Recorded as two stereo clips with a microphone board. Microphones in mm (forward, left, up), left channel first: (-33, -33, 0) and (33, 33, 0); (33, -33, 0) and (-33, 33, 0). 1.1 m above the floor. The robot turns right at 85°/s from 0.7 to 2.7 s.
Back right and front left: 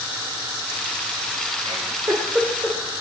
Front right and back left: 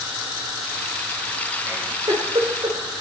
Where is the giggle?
65° left, 3 m; by 2.8 s 155° left, 3 m.